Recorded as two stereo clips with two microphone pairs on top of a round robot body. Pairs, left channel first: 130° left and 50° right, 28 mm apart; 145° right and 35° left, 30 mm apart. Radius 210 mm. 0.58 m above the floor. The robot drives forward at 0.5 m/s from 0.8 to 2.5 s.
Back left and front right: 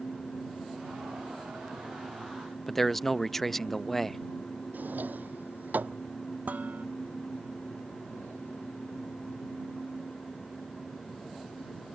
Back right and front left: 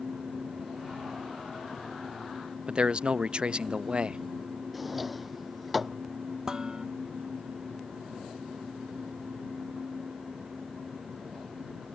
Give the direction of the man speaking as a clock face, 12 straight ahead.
10 o'clock.